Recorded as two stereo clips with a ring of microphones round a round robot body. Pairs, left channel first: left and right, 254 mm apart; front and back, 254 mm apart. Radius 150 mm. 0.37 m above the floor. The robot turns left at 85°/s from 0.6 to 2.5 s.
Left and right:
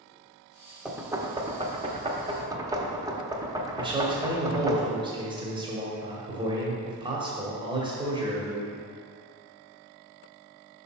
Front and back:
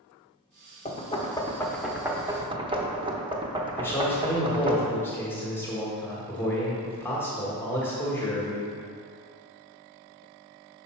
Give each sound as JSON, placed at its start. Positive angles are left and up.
{"t": 0.8, "sound": "knocking", "azimuth_deg": -5, "distance_m": 0.8}
{"t": 3.8, "sound": "a man speaking", "azimuth_deg": -65, "distance_m": 1.2}